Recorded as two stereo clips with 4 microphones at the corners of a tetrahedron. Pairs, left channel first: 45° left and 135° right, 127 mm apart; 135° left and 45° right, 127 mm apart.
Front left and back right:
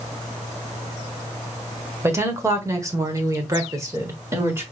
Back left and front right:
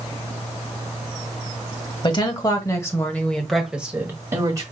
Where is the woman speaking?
165° left, 1.7 m; by 4.6 s 80° right, 1.5 m.